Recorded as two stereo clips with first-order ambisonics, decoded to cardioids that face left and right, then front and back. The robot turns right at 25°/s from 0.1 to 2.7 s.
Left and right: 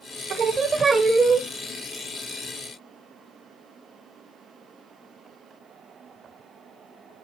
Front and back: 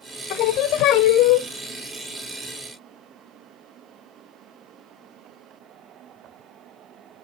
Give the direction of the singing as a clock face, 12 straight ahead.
1 o'clock.